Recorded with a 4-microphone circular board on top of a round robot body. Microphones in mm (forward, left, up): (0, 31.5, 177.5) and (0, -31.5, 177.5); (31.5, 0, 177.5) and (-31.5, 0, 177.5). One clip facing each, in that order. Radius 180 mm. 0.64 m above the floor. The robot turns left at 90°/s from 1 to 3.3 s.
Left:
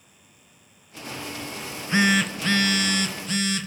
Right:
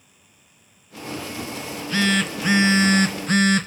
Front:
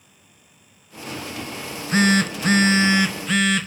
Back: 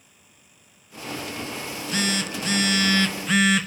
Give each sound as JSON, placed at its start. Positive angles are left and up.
{"t": 1.6, "sound": "a phone buzzing", "azimuth_deg": 60, "distance_m": 1.7}